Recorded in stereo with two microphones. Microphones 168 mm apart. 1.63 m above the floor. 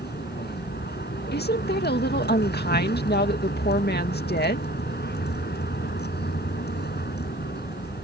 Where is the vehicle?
80° left.